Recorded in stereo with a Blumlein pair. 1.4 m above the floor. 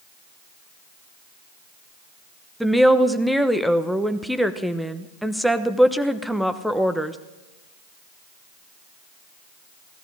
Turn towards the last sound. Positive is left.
turn(degrees=0)